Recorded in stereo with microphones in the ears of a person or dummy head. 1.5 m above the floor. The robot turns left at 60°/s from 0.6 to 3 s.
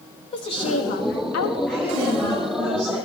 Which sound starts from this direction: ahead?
A woman speaking, at 1.7 s.